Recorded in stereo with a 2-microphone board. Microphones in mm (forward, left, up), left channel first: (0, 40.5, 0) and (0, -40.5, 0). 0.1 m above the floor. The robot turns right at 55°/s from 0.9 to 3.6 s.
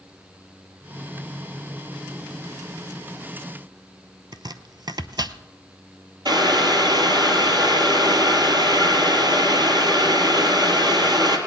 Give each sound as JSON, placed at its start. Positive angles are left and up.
{"t": 4.3, "sound": "chopping", "side_deg": -60, "distance_m": 0.6}
{"t": 6.2, "sound": "boiling", "side_deg": -55, "distance_m": 2.5}